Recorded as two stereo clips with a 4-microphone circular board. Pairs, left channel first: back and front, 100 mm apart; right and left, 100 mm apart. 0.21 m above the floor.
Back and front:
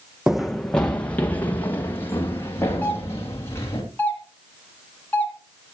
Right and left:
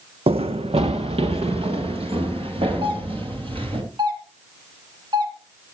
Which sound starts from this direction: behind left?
A doorbell, at 2.8 s.